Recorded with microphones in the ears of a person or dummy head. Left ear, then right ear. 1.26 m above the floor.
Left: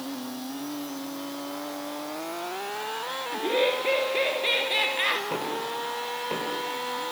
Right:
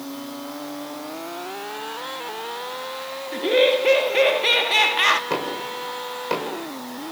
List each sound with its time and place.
3.3 s laughter: 35° right (ahead or behind), 1.8 m
5.3 s knocking: 45° right (ahead or behind), 4.5 m